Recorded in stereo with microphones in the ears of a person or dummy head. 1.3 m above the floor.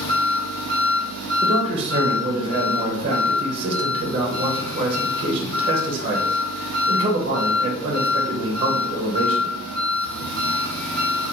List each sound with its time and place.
0.0 s an engine running: 35° left (ahead or behind), 1.1 m
1.4 s a man speaking: 25° right (ahead or behind), 0.7 m